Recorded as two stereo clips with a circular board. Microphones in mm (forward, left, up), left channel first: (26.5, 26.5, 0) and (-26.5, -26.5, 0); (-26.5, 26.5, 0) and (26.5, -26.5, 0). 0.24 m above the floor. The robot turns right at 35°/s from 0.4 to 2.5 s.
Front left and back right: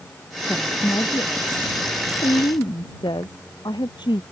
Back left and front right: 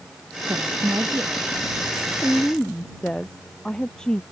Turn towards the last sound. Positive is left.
turn(degrees=55)